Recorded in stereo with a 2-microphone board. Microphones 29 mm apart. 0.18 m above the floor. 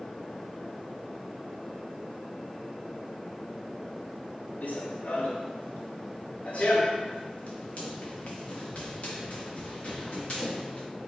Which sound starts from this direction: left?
Running footsteps, at 4.6 s.